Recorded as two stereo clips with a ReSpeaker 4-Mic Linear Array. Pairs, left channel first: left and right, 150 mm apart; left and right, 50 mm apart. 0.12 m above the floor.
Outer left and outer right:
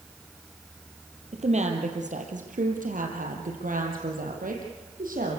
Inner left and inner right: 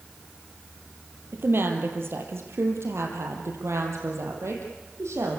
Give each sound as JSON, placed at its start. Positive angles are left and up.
{"t": 1.3, "sound": "a woman speaking", "side_deg": -50, "distance_m": 3.5}